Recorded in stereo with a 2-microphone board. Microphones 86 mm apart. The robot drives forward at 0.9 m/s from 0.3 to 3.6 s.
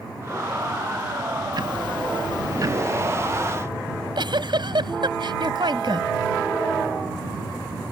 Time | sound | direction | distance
1.5 | ticking | 55° right (ahead or behind) | ?
3.9 | a giggle | 65° right (ahead or behind) | ?